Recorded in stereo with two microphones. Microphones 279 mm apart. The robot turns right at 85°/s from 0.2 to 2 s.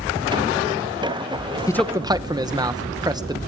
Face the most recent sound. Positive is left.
turn(degrees=-15)  # may be behind; listen again after turning